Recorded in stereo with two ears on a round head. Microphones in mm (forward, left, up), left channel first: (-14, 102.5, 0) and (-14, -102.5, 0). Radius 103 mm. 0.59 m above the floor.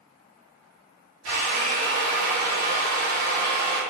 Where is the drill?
70° right (ahead or behind), 0.9 m.